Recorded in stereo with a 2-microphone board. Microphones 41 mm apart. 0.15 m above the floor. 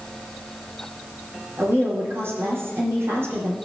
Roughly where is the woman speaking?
Right.